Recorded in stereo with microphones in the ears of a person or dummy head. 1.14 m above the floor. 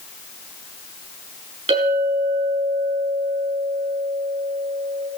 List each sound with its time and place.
1.7 s a clink: 35° right (ahead or behind), 5.5 m